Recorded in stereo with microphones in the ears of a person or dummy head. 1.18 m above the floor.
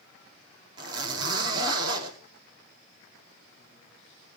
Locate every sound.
0.8 s a zipper: 30° right (ahead or behind), 3 m